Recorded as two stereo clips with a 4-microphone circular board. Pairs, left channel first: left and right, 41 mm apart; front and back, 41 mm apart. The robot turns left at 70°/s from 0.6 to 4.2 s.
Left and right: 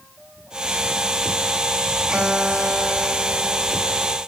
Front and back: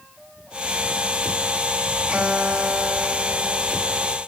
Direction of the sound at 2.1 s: 110° right.